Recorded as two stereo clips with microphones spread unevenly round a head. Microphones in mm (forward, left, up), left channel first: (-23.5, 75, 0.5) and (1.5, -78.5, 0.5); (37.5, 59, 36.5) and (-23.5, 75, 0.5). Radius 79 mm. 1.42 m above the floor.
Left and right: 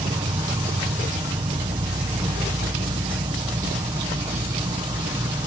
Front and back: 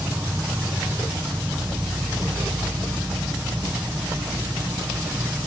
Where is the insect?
145° right.